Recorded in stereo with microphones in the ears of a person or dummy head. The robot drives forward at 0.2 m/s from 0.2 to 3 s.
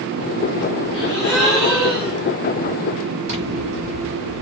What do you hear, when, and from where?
0.9 s a gasp: centre (ahead or behind), 1.9 m
3.3 s scissors: 60° right (ahead or behind), 1.6 m